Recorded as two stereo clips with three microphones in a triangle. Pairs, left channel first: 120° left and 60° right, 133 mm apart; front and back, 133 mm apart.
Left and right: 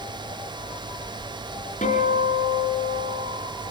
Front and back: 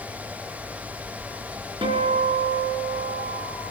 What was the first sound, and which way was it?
A guitar, 130° left.